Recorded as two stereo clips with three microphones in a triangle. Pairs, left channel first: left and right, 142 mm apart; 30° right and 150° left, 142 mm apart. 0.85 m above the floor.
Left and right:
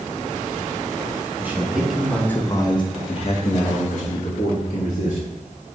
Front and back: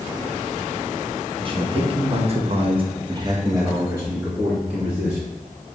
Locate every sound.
1.4 s a man speaking: 165° right, 0.9 m; by 5.2 s 65° left, 1.5 m